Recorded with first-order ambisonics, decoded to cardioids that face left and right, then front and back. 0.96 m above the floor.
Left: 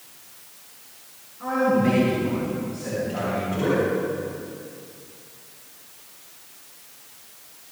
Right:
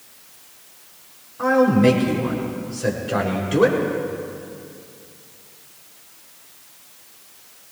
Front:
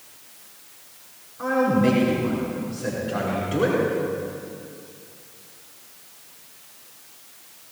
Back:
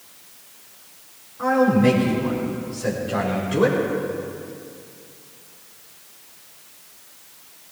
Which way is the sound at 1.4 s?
95° right.